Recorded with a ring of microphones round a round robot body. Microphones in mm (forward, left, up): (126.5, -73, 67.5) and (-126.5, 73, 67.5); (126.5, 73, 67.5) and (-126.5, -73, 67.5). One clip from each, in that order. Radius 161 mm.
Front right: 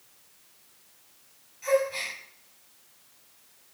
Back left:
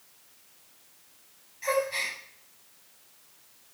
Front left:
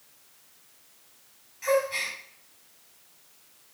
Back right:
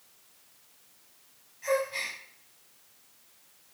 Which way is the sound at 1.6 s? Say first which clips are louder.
Front right 2 dB, front left 4 dB; 80° left.